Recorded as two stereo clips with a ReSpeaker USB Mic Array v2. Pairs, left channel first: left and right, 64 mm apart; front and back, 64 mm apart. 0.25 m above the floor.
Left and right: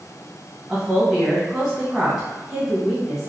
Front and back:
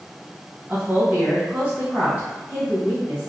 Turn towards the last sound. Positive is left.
turn(degrees=-175)